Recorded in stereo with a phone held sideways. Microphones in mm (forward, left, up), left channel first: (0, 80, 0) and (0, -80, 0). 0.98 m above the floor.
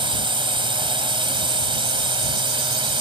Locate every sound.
0.0 s a drone: 30° right (ahead or behind)